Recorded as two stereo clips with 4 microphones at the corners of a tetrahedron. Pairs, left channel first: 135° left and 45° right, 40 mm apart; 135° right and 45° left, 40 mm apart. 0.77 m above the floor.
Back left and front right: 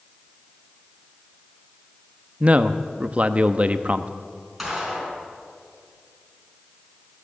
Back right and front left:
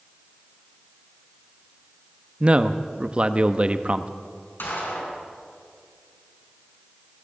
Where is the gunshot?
130° right, 4 m.